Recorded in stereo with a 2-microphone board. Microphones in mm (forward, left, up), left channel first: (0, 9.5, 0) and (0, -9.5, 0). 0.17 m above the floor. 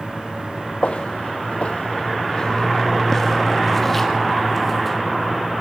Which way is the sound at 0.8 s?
75° left (ahead or behind).